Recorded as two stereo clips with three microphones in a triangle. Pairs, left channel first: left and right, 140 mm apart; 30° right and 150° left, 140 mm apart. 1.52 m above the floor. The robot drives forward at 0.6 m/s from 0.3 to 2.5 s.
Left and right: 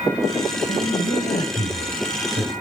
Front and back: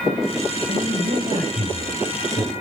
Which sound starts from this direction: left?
A man speaking, at 0.7 s.